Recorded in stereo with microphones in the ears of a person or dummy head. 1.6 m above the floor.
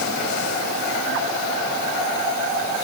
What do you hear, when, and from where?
Only background noise.